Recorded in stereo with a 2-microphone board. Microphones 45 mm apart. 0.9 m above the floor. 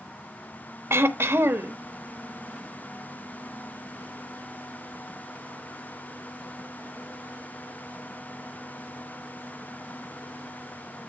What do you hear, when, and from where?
0.9 s throat clearing: 75° right (ahead or behind), 1.1 m